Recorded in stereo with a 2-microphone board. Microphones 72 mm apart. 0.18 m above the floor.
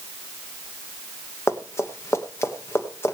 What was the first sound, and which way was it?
Running footsteps, 35° left (ahead or behind).